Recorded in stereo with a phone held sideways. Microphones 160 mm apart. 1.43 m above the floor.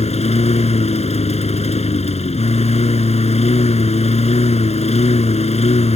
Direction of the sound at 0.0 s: 40° left (ahead or behind).